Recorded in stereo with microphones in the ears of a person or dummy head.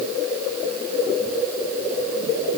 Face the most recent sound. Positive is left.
No sound to turn to.